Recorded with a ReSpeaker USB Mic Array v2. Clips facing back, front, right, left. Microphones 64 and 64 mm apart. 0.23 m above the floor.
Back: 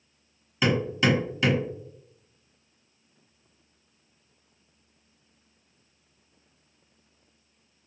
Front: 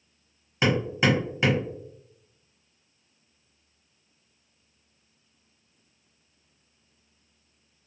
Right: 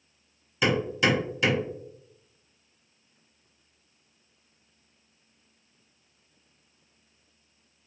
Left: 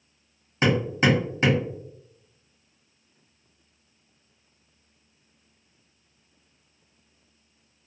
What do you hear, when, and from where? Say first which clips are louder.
0.6 s hammering: even, left 3 dB; 55° left, 1.4 m